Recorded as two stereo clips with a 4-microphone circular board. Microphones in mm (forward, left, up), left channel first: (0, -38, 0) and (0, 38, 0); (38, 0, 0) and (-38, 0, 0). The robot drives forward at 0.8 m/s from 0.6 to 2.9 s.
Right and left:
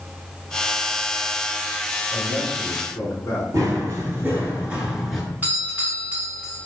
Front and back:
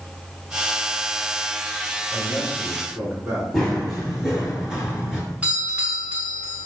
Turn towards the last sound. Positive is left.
turn(degrees=130)